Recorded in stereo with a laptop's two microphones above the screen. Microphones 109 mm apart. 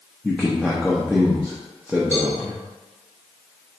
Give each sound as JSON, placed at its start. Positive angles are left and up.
{"t": 0.2, "sound": "a man speaking", "side_deg": 5, "distance_m": 0.8}
{"t": 2.1, "sound": "a cowbell", "side_deg": 75, "distance_m": 1.5}